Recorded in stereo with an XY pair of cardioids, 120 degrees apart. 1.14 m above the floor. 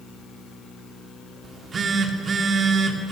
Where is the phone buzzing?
40° right, 3 m.